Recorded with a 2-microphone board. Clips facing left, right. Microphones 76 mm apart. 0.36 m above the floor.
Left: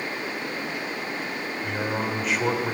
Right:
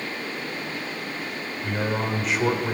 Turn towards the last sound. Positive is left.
turn(degrees=0)  # may be behind; listen again after turning